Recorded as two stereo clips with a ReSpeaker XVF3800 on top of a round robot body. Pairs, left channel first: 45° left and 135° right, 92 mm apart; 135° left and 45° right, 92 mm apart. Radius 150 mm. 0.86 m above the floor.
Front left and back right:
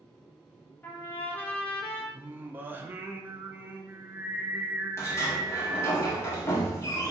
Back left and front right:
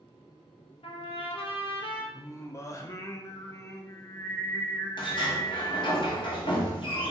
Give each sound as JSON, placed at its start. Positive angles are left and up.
{"t": 0.8, "sound": "a trumpet", "azimuth_deg": 115, "distance_m": 1.0}
{"t": 2.1, "sound": "singing", "azimuth_deg": 170, "distance_m": 0.7}
{"t": 5.0, "sound": "a sliding door", "azimuth_deg": 105, "distance_m": 1.2}